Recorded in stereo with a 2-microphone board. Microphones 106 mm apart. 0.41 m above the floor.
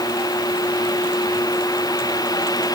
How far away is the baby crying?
I don't hear a baby crying.